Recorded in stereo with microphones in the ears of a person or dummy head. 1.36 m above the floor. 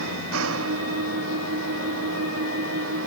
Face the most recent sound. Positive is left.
turn(degrees=-80)